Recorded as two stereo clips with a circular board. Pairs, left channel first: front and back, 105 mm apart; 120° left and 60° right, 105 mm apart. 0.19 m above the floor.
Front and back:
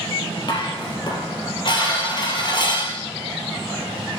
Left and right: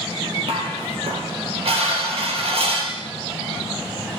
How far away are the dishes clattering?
About 3.5 m.